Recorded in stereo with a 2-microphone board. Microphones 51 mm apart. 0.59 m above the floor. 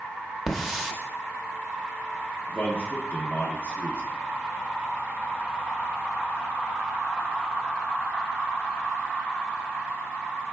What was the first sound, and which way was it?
A hiss, centre (ahead or behind).